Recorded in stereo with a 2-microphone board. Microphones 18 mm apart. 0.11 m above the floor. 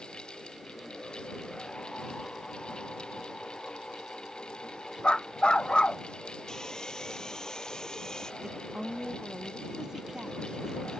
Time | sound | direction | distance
5.0 | a dog barking | 75° left (ahead or behind) | ?
6.5 | sawing | 40° left (ahead or behind) | ?
8.4 | a woman speaking | 45° right (ahead or behind) | ?